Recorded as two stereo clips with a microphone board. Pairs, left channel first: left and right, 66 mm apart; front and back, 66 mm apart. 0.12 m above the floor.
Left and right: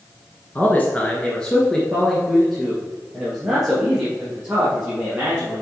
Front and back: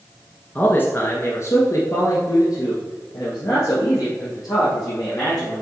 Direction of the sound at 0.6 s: 45° left.